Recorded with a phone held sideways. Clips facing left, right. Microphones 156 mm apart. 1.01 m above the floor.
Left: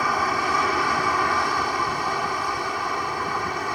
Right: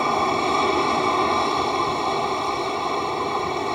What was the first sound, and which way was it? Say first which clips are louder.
An aircraft: right 3 dB; 25° right (ahead or behind).